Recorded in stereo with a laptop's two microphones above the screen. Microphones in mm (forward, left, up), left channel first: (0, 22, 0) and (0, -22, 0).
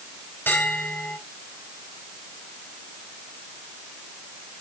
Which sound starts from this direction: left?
A bell, at 0.5 s.